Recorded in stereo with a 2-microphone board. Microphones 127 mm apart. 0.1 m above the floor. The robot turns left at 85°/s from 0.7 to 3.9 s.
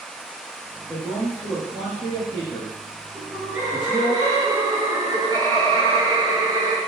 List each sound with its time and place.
0.9 s a man speaking: 5° left (ahead or behind), 1.5 m; by 4.2 s 45° right (ahead or behind), 1.5 m
3.1 s laughter: 10° left, 1.3 m; by 6.8 s 55° right, 1.3 m